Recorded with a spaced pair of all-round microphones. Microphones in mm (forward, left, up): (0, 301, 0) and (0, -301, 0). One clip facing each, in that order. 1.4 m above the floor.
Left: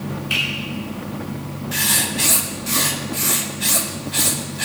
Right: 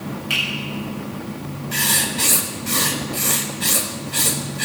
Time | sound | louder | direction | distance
0.3 | a finger snap | left 1 dB | 85° right | 6 m
1.7 | writing | even | 10° left (ahead or behind) | 0.9 m